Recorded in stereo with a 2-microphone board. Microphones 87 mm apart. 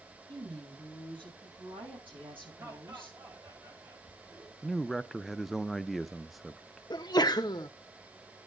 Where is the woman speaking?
90° right, 7.5 m; by 3.2 s 80° right, 11 m.